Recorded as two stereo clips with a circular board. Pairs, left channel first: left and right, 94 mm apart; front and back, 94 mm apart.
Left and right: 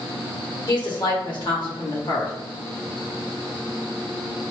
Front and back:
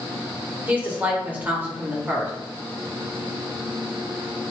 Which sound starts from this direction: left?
A woman speaking, at 0.7 s.